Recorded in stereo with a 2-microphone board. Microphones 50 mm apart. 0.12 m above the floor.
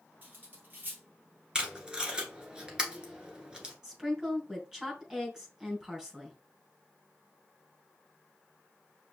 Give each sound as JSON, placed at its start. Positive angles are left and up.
{"t": 0.2, "sound": "cutlery clinking", "side_deg": -35, "distance_m": 1.9}
{"t": 1.6, "sound": "tape being pulled", "side_deg": -15, "distance_m": 1.3}
{"t": 3.8, "sound": "a woman speaking", "side_deg": -15, "distance_m": 3.0}